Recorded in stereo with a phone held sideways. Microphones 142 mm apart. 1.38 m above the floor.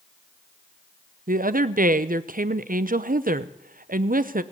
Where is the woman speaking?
80° right, 0.6 m.